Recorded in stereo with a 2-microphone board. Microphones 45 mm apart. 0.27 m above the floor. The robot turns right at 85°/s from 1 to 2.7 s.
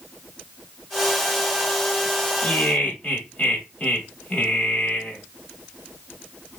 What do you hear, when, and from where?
2.4 s laughter: 25° left (ahead or behind), 1.1 m; by 5.2 s 30° left (ahead or behind), 1.1 m